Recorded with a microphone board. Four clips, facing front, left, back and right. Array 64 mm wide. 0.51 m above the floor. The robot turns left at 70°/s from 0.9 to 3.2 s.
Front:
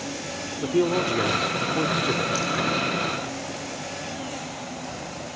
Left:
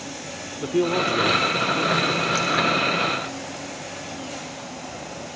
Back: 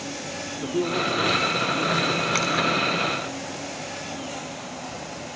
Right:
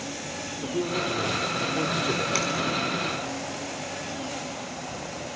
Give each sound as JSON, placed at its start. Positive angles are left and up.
{"t": 0.6, "sound": "a man speaking", "azimuth_deg": 60, "distance_m": 1.0}
{"t": 2.4, "sound": "a finger snap", "azimuth_deg": -170, "distance_m": 3.5}